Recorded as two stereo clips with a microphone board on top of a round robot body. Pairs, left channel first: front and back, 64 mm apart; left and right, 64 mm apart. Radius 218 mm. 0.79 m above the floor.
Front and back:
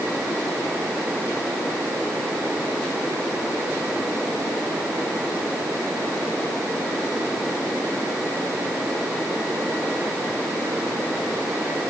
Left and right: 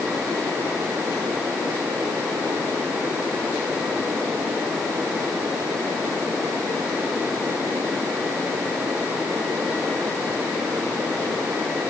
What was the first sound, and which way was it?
Only background noise.